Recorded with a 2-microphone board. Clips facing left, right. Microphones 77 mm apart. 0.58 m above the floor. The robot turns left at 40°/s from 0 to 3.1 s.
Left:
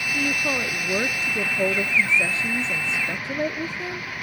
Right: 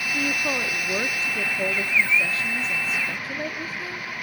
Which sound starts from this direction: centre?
A woman speaking, at 0.1 s.